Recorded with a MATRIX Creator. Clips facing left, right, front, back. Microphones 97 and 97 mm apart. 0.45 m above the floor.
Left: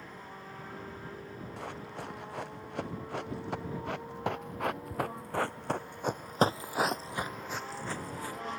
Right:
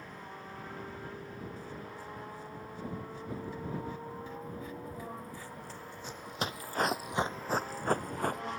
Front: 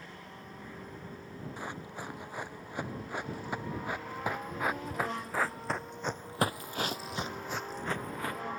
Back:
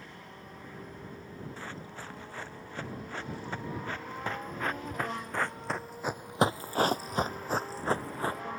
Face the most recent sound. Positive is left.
turn(degrees=-120)